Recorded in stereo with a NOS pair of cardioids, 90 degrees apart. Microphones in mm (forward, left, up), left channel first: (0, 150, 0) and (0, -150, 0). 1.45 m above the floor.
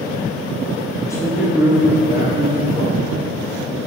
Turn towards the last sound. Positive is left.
turn(degrees=-30)